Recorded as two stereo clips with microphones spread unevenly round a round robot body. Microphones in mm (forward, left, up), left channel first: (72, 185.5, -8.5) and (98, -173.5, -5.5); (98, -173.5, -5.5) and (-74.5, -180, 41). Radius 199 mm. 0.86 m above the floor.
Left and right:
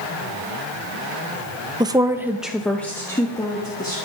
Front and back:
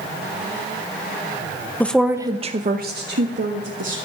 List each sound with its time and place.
1.8 s a woman speaking: 20° right, 0.9 m; by 4.0 s 175° left, 2.0 m